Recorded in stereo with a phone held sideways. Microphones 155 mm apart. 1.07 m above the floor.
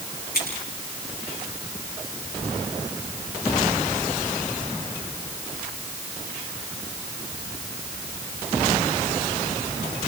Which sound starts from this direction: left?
Scissors, at 0.3 s.